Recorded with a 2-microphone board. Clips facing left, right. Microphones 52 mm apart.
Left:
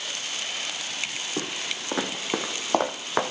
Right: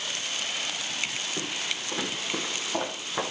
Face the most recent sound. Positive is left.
turn(degrees=75)  # may be behind; listen again after turning